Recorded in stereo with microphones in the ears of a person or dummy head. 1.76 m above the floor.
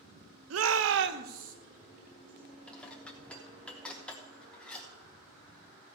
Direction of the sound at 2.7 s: 10° left (ahead or behind).